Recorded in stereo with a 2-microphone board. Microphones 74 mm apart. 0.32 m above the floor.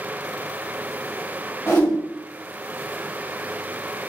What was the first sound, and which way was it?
A whoosh, 40° left (ahead or behind).